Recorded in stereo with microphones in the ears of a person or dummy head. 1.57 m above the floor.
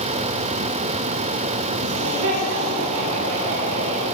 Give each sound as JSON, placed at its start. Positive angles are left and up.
{"t": 1.8, "sound": "laughter", "side_deg": -80, "distance_m": 6.5}